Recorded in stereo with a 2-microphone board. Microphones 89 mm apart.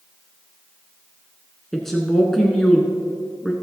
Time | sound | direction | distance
1.7 | a woman speaking | 5° left (ahead or behind) | 1.3 m